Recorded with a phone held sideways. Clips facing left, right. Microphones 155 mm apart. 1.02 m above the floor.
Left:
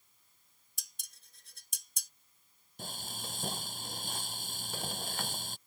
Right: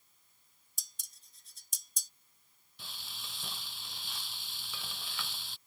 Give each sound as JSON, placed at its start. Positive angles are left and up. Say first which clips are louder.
{"t": 0.8, "sound": "dishes clattering", "louder": "left 3 dB", "side_deg": 65}
{"t": 2.8, "sound": "frying", "louder": "left 8 dB", "side_deg": 45}